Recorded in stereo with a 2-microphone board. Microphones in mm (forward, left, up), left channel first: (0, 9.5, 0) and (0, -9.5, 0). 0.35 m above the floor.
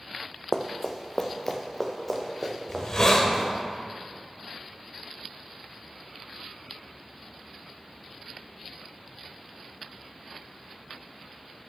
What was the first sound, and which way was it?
Running footsteps, 30° left (ahead or behind).